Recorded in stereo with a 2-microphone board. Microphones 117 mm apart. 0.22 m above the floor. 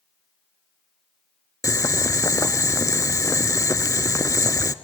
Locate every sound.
1.6 s boiling: 25° left (ahead or behind), 0.5 m